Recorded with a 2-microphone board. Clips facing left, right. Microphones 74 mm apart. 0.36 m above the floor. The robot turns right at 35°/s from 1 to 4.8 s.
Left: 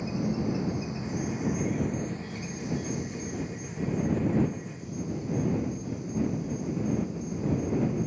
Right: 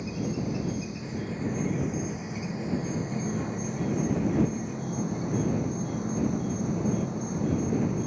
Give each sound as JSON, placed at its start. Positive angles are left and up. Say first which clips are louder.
{"t": 0.0, "sound": "an insect", "louder": "left 2 dB", "azimuth_deg": 155}